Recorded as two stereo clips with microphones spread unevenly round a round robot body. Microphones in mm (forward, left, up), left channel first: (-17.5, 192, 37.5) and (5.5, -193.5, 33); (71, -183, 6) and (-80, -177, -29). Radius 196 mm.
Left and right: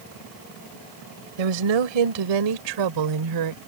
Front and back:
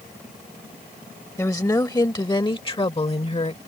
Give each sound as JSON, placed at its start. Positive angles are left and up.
{"t": 1.4, "sound": "a woman speaking", "azimuth_deg": -75}